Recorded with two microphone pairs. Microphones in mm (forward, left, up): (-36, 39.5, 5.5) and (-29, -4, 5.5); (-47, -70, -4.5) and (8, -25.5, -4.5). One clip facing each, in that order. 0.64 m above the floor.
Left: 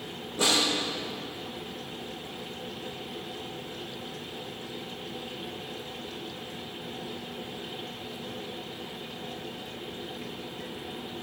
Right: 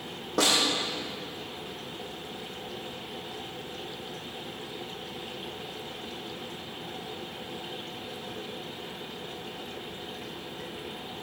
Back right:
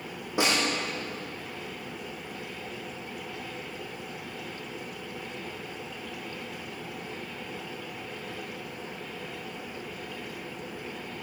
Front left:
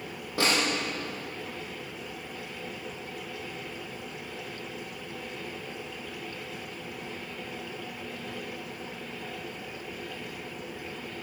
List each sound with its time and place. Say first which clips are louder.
0.4 s a snare drum: right 1 dB, even; 70° right, 5.5 m